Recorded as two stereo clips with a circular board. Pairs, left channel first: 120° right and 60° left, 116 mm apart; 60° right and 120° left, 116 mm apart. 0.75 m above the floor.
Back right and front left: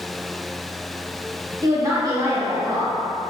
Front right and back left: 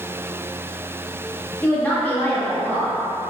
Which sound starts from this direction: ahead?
A woman speaking, at 1.6 s.